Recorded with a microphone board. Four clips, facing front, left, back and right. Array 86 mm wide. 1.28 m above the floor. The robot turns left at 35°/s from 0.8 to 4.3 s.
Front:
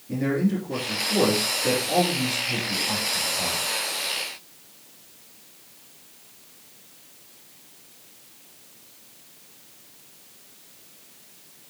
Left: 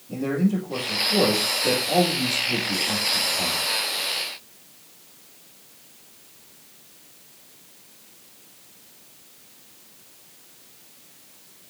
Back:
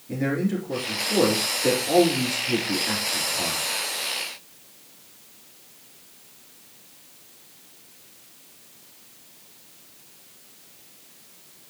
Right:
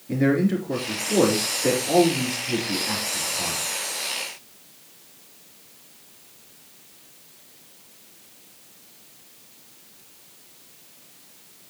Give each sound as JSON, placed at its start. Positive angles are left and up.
{"t": 0.1, "sound": "a man speaking", "azimuth_deg": -95, "distance_m": 3.5}